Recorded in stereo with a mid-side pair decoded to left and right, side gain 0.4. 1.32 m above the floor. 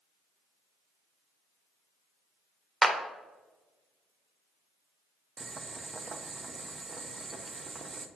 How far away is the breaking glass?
I don't hear breaking glass.